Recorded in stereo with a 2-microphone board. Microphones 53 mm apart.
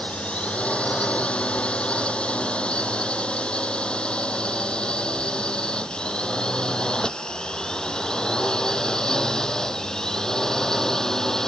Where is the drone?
20° left (ahead or behind); by 11.5 s 10° left (ahead or behind).